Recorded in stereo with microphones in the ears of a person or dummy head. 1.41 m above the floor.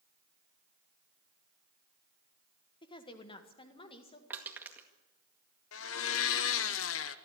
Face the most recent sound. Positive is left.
turn(degrees=70)  # may be behind; listen again after turning